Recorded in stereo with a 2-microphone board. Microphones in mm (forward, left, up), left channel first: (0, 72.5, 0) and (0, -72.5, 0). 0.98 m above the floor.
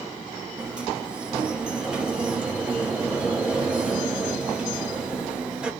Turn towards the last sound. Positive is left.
turn(degrees=-5)  # may be behind; listen again after turning